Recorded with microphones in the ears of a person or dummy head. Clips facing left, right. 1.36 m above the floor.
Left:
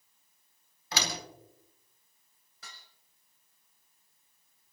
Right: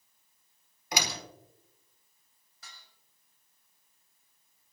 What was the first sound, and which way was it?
A door slam, 20° right (ahead or behind).